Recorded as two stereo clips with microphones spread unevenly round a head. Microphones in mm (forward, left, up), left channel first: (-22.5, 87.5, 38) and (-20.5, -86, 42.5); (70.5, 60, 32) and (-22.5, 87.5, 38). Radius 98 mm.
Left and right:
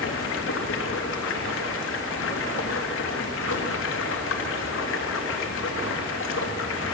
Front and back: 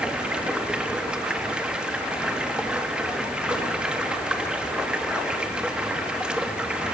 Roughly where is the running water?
Left.